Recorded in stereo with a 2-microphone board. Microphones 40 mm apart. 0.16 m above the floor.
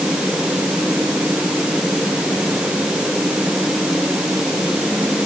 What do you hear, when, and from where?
Only background noise.